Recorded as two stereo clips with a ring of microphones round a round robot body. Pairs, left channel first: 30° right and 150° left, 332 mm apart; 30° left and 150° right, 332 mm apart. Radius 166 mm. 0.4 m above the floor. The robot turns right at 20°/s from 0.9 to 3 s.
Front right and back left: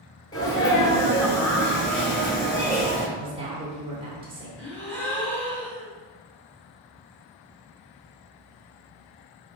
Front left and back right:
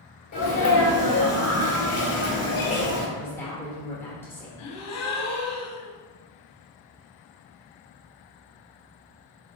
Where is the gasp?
55° left, 1.0 m.